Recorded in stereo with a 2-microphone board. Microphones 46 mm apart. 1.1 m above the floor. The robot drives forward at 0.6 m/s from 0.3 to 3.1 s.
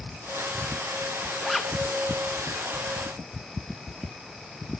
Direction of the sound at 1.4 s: Centre (ahead or behind).